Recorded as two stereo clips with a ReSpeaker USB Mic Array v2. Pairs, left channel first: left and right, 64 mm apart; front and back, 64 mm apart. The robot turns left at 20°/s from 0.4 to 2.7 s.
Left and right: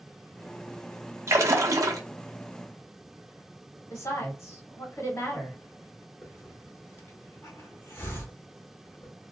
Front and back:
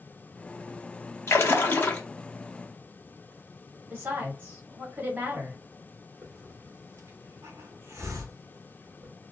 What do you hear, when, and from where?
1.3 s a splash: 45° right, 0.5 m; by 2.0 s 60° right, 0.5 m
3.9 s a woman speaking: 125° left, 1.3 m
6.2 s a hiss: 140° left, 0.9 m